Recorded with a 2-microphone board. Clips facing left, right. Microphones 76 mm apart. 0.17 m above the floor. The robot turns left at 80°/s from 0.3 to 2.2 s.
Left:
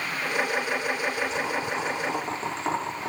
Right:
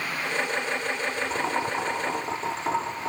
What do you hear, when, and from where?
1.3 s boiling: 40° right (ahead or behind), 4.5 m; by 3.1 s 30° left (ahead or behind), 4.5 m